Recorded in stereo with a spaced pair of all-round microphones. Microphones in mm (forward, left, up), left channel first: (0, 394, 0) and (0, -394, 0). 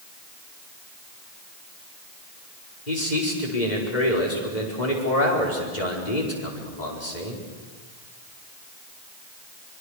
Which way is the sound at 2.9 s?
60° left (ahead or behind).